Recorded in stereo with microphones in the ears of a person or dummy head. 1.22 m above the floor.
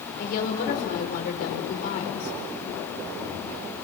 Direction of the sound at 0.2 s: 50° left (ahead or behind).